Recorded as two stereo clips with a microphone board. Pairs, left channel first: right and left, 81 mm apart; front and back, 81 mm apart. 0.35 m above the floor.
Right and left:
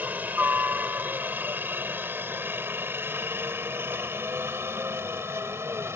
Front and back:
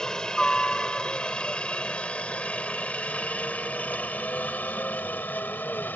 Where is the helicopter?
70° left; by 6.0 s 55° left.